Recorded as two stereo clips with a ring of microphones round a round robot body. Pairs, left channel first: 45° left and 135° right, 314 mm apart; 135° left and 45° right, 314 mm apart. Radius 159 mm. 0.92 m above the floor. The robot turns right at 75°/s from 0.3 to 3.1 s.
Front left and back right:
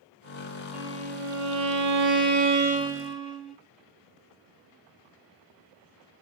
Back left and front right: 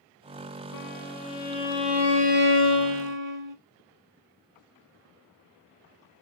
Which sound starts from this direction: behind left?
A violin, at 0.7 s.